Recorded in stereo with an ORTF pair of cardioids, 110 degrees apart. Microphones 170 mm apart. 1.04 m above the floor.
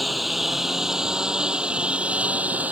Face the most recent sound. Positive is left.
turn(degrees=-10)